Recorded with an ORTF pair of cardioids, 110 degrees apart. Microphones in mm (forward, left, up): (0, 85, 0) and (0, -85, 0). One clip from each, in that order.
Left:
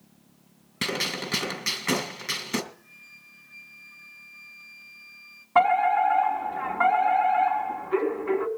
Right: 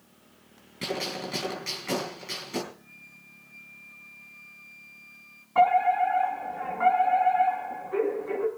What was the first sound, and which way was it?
A gunshot, 60° left.